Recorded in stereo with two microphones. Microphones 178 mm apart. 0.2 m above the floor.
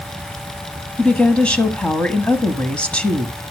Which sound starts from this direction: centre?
A woman speaking, at 1.0 s.